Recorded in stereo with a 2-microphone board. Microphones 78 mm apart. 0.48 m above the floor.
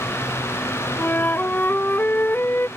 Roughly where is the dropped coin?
I don't hear a dropped coin.